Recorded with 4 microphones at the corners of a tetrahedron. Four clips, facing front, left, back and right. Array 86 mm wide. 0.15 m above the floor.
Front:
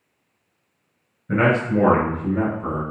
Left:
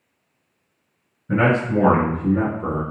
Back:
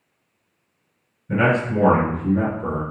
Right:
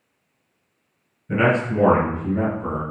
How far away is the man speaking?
About 1.6 m.